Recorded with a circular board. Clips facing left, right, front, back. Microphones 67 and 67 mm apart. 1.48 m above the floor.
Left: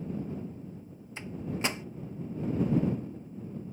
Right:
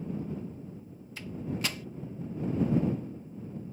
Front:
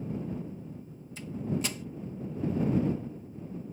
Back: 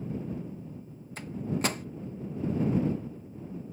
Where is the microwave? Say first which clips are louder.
Left 1 dB, back 1 dB; 155° left.